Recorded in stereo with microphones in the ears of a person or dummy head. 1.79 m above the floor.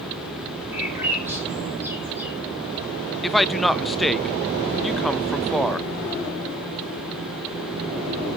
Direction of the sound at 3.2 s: 5° left (ahead or behind).